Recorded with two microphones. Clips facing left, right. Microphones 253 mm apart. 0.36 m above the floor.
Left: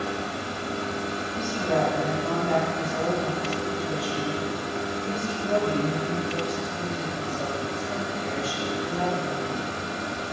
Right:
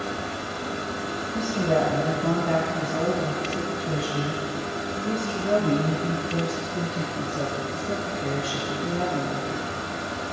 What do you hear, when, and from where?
1.3 s a woman speaking: 55° right (ahead or behind), 1.6 m; by 9.7 s 70° right (ahead or behind), 5.5 m